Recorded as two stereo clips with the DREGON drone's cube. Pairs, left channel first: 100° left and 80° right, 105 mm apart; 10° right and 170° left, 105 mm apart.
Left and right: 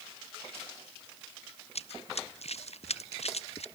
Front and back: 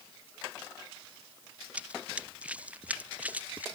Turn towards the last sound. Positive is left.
turn(degrees=95)